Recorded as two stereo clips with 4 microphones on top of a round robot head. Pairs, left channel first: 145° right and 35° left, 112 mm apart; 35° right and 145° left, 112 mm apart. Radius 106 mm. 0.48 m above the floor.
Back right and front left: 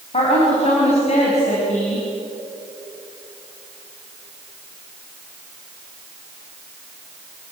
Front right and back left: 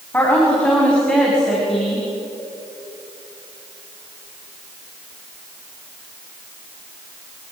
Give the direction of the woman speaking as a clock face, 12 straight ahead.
4 o'clock.